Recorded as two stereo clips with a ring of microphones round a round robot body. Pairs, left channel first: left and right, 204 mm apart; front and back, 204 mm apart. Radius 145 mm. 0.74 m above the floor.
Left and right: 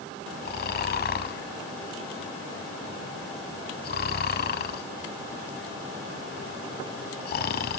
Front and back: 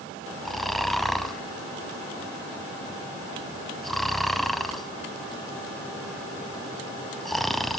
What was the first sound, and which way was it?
Snoring, 90° left.